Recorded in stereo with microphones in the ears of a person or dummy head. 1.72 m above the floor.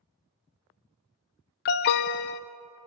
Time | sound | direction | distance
1.6 | an alarm | 55° left (ahead or behind) | 0.7 m